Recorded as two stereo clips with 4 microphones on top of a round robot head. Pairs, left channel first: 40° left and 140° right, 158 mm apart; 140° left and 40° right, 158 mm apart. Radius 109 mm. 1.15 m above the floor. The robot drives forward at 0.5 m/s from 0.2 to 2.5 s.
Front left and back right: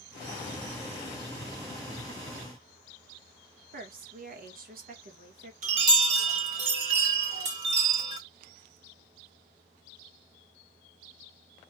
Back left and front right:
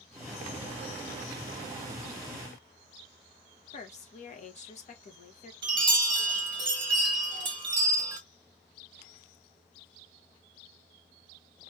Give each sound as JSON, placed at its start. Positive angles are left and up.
{"t": 3.7, "sound": "a woman speaking", "azimuth_deg": -175, "distance_m": 1.5}
{"t": 5.6, "sound": "a chime", "azimuth_deg": -100, "distance_m": 1.1}